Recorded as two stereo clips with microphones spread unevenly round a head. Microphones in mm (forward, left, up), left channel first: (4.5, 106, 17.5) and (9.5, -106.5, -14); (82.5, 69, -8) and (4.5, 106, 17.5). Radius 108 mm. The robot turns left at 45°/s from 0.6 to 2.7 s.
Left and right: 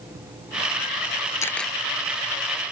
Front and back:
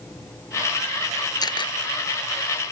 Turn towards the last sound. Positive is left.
turn(degrees=-45)